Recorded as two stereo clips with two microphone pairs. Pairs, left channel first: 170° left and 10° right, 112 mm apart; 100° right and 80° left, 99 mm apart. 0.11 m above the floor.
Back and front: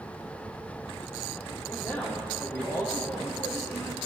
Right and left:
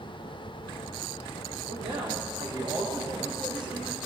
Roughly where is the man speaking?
Left.